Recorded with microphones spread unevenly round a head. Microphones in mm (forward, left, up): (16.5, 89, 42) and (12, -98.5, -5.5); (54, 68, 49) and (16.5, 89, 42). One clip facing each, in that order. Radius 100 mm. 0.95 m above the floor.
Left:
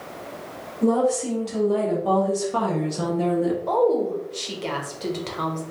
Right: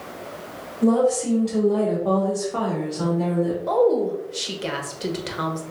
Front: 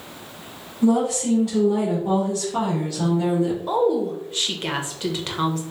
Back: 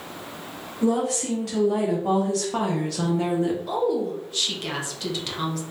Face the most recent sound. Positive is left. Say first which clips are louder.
# right 3 dB, front 4 dB
turn(degrees=-70)